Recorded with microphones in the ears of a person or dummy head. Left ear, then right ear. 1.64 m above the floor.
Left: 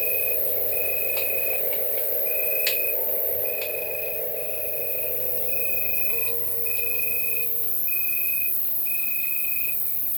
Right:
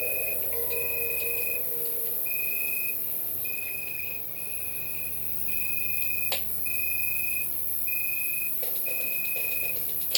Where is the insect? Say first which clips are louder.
Left 3 dB; 20° left (ahead or behind), 3 m.